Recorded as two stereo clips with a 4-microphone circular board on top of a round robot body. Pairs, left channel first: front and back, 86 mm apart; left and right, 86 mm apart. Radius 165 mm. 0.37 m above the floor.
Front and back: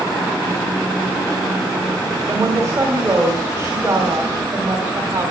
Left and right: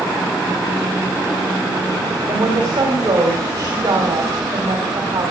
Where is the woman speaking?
125° right, 3 m.